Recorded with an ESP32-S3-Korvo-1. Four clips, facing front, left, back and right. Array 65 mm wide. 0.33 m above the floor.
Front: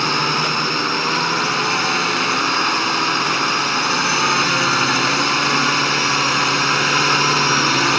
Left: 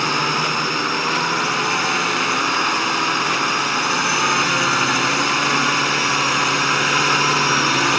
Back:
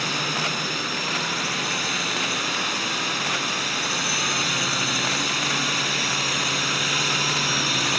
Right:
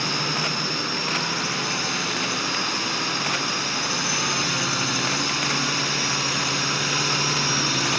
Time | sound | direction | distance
0.0 | a drone | 40° left | ?